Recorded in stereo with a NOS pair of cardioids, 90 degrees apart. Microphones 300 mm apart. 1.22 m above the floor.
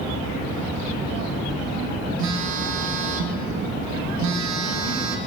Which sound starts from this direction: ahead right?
A phone buzzing, at 2.2 s.